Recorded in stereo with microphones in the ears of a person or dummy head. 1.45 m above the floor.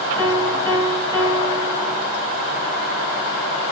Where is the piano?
30° right (ahead or behind), 2.5 m.